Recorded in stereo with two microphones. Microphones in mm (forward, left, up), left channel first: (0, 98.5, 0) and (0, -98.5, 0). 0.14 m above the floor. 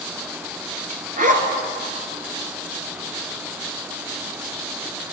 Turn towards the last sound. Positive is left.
turn(degrees=-45)  # may be behind; listen again after turning